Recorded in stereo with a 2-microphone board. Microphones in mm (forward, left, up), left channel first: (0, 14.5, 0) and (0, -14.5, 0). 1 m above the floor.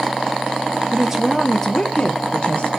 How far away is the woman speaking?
About 0.5 m.